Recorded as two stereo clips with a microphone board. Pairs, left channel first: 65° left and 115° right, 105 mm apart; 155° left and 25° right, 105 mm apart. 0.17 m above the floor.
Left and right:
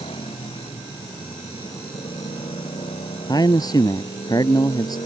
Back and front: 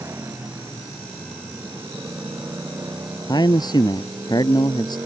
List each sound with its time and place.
0.0 s a motorcycle: 45° left; by 5.1 s 40° left
3.3 s a man speaking: 115° left